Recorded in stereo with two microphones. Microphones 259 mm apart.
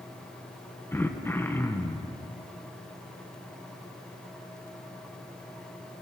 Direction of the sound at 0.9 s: 10° left (ahead or behind).